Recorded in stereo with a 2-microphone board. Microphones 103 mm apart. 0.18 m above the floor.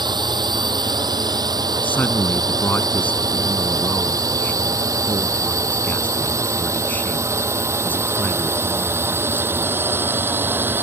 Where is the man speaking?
20° left (ahead or behind).